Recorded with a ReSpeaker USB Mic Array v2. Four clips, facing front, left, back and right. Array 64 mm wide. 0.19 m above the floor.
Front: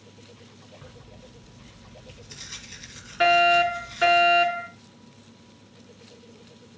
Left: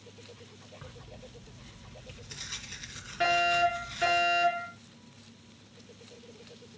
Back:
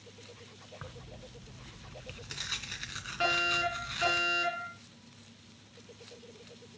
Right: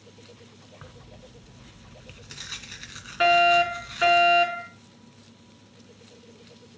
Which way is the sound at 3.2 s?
70° right.